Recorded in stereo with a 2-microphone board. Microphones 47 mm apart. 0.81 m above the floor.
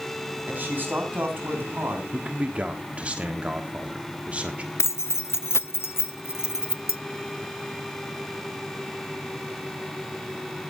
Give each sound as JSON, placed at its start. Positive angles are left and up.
{"t": 0.5, "sound": "a man speaking", "side_deg": -40, "distance_m": 5.0}
{"t": 2.1, "sound": "a man speaking", "side_deg": -25, "distance_m": 1.3}
{"t": 4.8, "sound": "keys jangling", "side_deg": 60, "distance_m": 0.5}